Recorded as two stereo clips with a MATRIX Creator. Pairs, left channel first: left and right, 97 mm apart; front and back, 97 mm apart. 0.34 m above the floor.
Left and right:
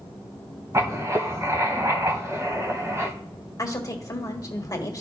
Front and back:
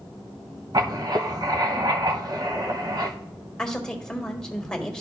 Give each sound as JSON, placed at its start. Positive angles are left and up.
{"t": 0.7, "sound": "writing", "azimuth_deg": -145, "distance_m": 0.9}
{"t": 3.6, "sound": "a woman speaking", "azimuth_deg": 75, "distance_m": 1.3}